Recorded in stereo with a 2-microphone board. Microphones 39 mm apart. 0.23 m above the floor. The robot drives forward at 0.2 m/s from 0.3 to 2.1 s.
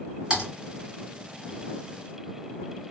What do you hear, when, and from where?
0.3 s typing on a keyboard: 20° right (ahead or behind), 2 m